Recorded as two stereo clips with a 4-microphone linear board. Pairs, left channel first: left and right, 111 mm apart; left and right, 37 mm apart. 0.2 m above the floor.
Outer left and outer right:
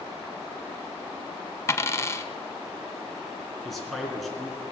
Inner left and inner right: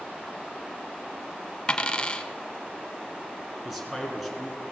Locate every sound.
1.7 s a dropped coin: 25° left (ahead or behind), 0.7 m
3.6 s a man speaking: centre (ahead or behind), 2 m